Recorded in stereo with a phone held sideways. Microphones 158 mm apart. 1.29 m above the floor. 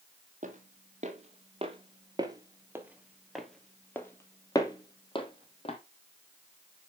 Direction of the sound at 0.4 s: 50° right (ahead or behind).